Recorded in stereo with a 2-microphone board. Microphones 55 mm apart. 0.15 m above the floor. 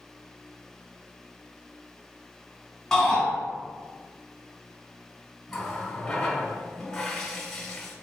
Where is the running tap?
10° left (ahead or behind), 1.2 m.